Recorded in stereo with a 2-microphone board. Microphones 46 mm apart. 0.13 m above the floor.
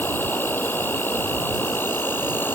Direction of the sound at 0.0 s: 65° left (ahead or behind).